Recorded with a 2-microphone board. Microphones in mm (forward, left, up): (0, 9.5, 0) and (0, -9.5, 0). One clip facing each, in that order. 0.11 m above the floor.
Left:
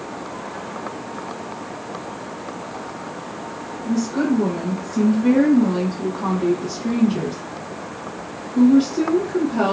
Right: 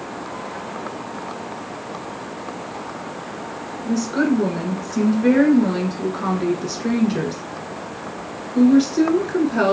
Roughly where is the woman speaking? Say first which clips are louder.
Right 1 dB; right.